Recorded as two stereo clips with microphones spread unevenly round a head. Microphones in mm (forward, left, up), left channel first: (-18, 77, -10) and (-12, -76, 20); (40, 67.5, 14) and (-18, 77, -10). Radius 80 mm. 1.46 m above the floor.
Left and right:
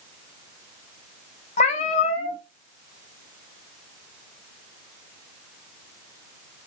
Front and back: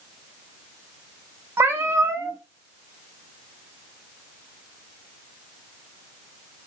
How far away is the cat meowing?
About 0.7 m.